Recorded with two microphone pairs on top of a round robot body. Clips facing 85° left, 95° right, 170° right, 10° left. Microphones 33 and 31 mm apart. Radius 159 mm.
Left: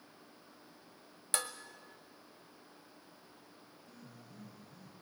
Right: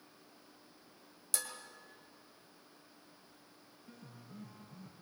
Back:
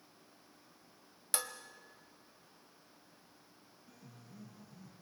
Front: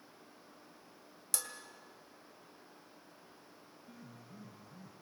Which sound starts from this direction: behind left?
Dishes clattering, at 1.3 s.